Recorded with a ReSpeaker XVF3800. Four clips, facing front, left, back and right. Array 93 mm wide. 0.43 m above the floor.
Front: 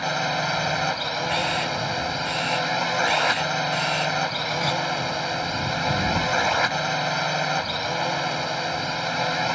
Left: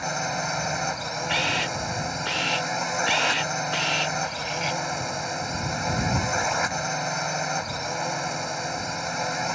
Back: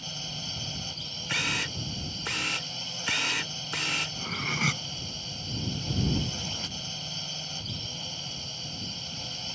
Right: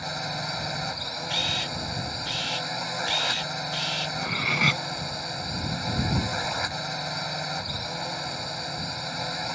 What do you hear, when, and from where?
0.0 s a drone: 20° left
1.3 s a camera shutter: 110° left
4.2 s cutlery clinking: 110° right